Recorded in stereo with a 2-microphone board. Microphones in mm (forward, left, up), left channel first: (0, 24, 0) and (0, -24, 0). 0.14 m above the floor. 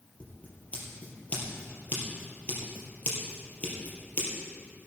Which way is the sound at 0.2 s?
35° left (ahead or behind).